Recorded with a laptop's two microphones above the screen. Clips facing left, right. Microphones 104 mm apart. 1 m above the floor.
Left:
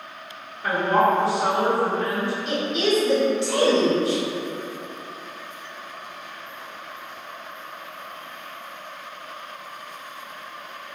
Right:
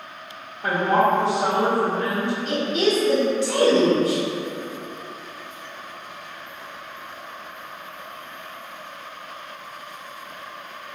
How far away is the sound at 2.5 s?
About 1.0 m.